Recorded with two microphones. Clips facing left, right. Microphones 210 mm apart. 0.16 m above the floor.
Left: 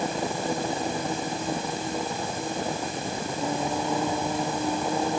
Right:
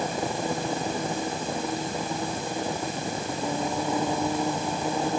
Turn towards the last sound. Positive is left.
No sound to turn to.